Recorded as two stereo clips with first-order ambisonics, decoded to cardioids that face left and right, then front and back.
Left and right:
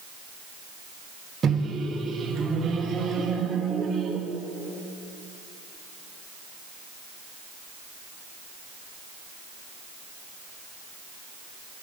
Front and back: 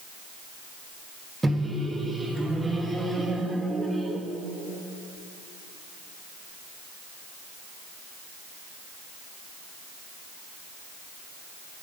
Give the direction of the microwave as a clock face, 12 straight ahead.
4 o'clock.